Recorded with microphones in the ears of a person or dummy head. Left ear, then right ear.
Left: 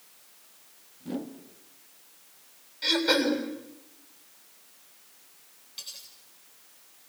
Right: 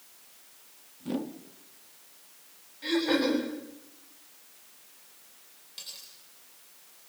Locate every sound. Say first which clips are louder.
1.0 s a whoosh: right 2 dB; 10° right (ahead or behind), 1.6 m
2.8 s throat clearing: left 3 dB; 50° left (ahead or behind), 7.5 m
5.8 s cutlery clinking: left 1 dB; 5° left (ahead or behind), 9 m